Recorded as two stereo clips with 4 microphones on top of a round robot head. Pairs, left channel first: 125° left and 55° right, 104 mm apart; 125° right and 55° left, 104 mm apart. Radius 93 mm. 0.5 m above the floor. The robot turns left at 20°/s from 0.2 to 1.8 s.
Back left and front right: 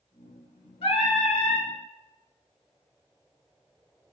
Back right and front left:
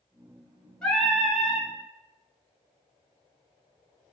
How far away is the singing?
About 0.8 m.